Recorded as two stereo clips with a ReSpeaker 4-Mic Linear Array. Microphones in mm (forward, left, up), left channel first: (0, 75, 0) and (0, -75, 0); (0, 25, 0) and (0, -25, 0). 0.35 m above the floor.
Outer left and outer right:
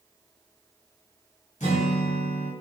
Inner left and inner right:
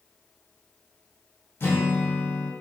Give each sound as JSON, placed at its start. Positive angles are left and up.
{"t": 1.6, "sound": "a guitar", "side_deg": 55, "distance_m": 1.6}